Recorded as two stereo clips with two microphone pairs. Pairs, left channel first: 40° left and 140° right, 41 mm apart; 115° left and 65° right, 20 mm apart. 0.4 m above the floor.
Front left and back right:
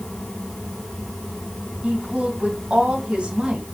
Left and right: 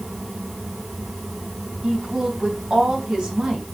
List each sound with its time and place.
1.8 s a woman speaking: 75° right, 3.5 m